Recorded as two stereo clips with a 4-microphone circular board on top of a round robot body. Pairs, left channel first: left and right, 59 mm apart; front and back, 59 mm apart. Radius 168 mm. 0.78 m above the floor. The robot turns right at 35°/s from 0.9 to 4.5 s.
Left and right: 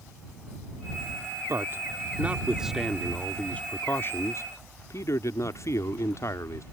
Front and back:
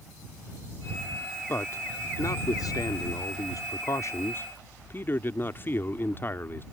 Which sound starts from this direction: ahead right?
A man speaking, at 1.5 s.